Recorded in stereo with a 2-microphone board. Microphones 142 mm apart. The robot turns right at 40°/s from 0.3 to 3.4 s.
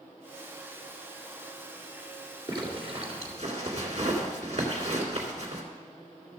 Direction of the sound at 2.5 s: 35° right (ahead or behind).